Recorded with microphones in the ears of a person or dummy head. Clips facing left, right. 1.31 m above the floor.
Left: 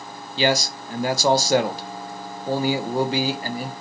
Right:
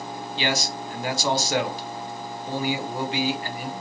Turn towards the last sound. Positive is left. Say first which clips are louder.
# left 6 dB
turn(degrees=35)  # may be behind; listen again after turning